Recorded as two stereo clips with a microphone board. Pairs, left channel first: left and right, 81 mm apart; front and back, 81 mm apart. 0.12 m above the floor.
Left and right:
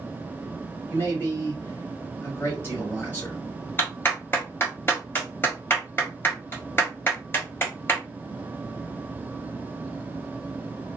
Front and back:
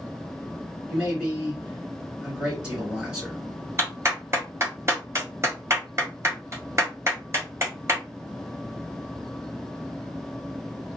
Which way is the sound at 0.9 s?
110° left.